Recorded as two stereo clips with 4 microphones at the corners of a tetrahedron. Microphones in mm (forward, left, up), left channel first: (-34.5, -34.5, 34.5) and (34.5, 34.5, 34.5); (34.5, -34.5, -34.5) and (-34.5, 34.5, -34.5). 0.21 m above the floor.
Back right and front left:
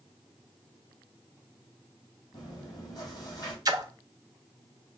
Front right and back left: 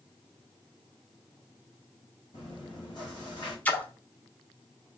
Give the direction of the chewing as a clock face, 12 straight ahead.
3 o'clock.